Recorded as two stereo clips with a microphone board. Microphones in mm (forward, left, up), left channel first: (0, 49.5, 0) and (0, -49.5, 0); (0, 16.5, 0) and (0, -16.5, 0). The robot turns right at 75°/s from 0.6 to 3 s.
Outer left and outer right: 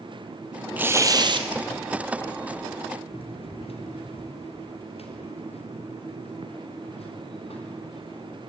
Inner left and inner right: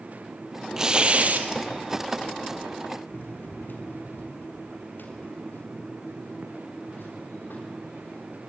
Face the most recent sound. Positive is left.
turn(degrees=80)